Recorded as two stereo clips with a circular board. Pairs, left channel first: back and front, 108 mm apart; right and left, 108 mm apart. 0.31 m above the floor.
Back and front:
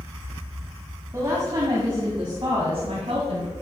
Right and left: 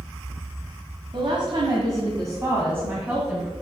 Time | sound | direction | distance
1.1 | a woman speaking | 60° left | 1.9 m